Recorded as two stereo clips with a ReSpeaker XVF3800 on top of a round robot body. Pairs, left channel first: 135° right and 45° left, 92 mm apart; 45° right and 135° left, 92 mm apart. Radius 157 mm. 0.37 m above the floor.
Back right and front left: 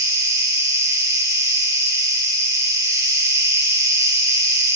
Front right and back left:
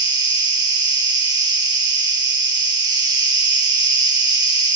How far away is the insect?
About 4.5 m.